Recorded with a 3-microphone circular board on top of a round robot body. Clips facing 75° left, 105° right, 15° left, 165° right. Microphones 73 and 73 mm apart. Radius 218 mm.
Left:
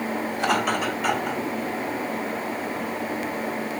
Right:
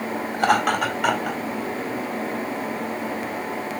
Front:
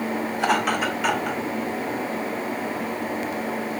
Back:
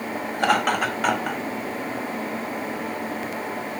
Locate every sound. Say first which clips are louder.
0.3 s laughter: right 5 dB, back 2 dB; 135° right, 4 m; by 1.4 s 120° right, 4 m